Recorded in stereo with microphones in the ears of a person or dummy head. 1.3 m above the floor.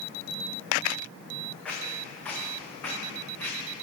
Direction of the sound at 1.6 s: 10° left (ahead or behind).